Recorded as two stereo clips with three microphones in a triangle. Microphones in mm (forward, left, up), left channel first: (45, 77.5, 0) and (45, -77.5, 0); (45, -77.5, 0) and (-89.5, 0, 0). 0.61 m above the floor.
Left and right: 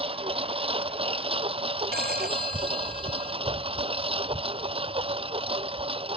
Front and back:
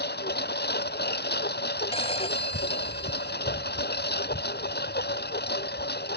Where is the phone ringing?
80° right.